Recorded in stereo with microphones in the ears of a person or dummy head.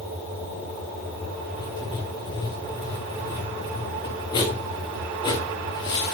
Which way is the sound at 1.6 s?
20° left (ahead or behind).